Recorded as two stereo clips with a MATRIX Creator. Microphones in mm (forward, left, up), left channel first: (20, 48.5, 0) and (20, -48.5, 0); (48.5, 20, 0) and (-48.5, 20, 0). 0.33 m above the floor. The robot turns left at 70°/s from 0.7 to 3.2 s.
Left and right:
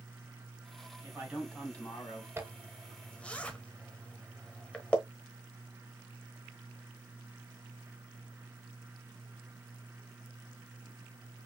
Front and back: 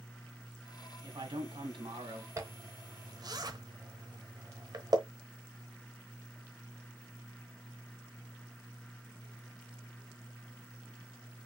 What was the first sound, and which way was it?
A man speaking, 145° right.